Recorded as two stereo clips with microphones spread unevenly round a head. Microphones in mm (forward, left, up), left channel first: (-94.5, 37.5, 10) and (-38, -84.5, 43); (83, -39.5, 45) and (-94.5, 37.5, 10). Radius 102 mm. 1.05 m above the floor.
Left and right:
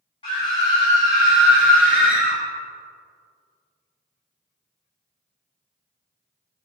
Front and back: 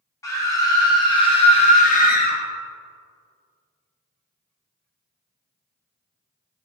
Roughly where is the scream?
Ahead left.